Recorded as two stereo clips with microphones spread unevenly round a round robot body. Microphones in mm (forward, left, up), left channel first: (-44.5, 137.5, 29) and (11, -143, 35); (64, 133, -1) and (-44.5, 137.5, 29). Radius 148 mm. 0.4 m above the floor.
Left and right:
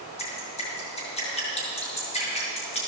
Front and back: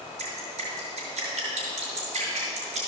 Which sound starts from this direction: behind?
Dripping, at 0.2 s.